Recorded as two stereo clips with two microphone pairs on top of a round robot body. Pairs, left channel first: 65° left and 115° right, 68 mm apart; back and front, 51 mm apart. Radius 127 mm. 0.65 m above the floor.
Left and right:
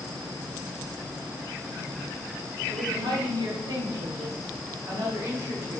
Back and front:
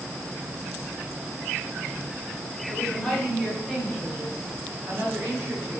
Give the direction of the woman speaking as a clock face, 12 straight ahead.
4 o'clock.